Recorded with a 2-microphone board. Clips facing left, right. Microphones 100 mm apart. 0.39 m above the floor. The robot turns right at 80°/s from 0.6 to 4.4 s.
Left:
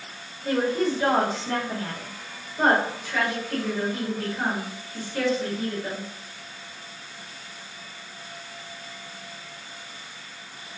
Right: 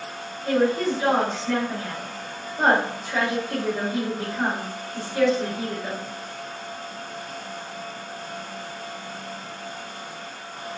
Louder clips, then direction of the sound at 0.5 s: Right 2 dB; 35° left.